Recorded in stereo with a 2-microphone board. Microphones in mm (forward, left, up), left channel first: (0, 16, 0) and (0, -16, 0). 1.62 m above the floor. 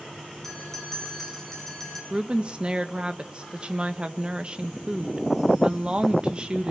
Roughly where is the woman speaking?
Right.